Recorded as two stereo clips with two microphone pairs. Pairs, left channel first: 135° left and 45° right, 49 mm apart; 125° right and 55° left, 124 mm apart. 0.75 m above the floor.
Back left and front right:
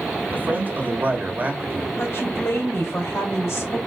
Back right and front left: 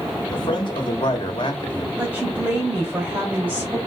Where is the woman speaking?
130° left, 2.5 m.